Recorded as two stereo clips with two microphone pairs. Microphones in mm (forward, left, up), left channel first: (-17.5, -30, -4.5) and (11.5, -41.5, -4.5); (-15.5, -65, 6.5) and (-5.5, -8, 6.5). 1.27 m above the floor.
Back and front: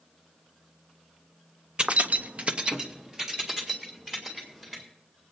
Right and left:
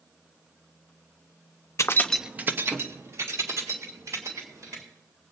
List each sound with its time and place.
1.8 s keys jangling: 75° right, 0.7 m; by 4.8 s 55° left, 4.5 m